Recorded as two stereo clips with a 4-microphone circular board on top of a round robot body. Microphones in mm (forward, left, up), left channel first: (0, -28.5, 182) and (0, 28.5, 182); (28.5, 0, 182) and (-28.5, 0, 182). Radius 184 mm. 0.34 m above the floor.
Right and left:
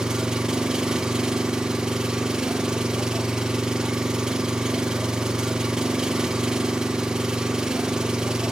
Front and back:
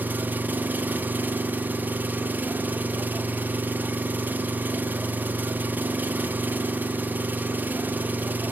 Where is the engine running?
160° left, 0.8 m.